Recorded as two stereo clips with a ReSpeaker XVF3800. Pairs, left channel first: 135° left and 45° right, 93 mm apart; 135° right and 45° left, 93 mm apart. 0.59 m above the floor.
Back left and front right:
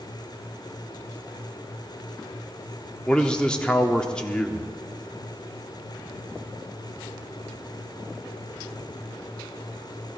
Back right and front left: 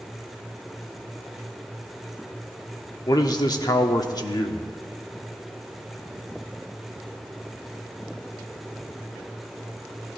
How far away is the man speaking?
About 1.1 m.